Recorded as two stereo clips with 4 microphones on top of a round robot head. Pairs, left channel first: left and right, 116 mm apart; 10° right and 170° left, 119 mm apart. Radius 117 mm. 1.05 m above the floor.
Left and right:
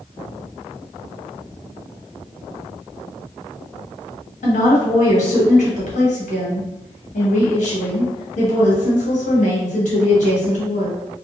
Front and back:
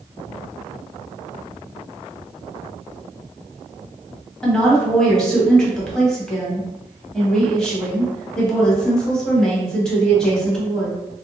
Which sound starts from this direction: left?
A woman speaking, at 4.4 s.